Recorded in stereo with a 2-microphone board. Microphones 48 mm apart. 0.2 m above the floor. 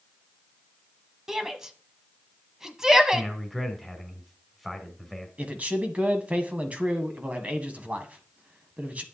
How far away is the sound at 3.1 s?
About 1.9 m.